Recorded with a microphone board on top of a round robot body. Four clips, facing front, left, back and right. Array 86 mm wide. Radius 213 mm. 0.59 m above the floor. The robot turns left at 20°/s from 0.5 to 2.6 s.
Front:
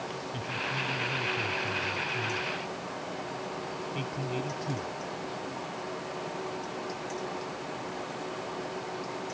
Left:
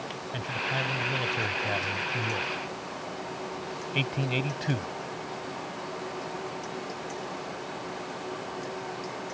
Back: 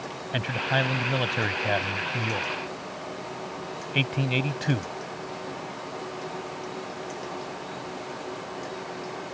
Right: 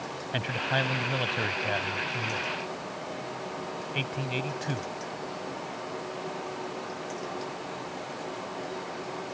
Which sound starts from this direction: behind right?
A man speaking, at 0.3 s.